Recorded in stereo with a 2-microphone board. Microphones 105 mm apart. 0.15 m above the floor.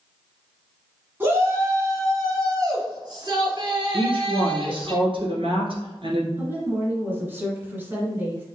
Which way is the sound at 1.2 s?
20° right (ahead or behind).